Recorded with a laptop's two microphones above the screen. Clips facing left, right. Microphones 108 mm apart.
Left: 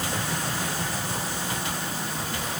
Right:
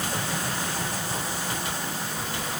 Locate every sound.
Only background noise.